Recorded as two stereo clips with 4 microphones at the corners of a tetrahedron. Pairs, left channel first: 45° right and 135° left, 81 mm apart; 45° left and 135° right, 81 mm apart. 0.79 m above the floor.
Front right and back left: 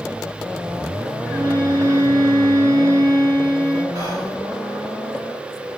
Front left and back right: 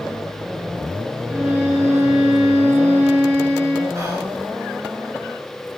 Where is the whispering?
175° left, 6 m.